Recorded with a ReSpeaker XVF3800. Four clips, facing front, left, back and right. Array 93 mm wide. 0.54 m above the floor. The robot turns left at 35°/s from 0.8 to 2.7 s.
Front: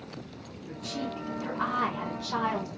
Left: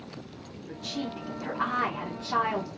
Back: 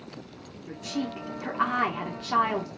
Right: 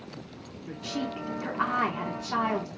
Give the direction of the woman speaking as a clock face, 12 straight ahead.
4 o'clock.